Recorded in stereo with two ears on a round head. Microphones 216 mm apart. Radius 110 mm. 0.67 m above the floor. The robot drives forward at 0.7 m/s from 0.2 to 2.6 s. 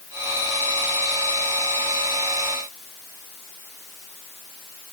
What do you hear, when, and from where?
Only background noise.